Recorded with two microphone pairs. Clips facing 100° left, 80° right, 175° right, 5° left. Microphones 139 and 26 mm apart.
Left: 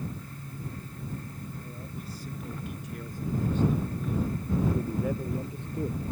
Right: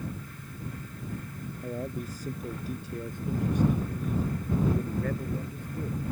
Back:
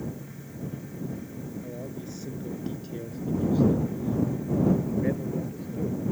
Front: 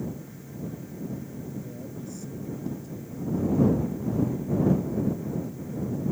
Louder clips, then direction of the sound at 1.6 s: Right 7 dB, back 1 dB; 110° right.